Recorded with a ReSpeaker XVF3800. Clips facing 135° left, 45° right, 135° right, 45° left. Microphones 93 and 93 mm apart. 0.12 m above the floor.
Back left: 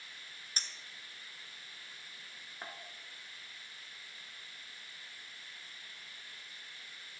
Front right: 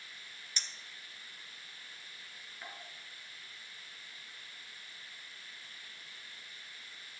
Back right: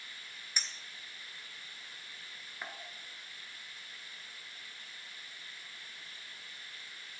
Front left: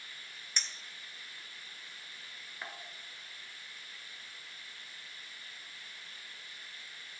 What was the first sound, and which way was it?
A clink, 145° left.